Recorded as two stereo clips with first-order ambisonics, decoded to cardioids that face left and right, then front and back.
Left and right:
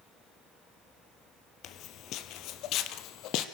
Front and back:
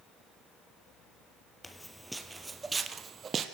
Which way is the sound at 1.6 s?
80° left.